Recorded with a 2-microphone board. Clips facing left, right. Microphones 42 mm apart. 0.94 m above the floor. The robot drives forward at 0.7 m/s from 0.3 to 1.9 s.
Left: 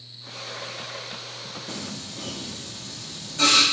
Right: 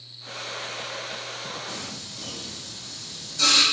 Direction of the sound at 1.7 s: 40° left (ahead or behind).